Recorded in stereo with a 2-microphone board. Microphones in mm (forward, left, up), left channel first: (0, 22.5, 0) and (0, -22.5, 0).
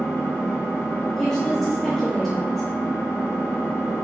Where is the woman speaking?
10° left (ahead or behind), 1.5 m.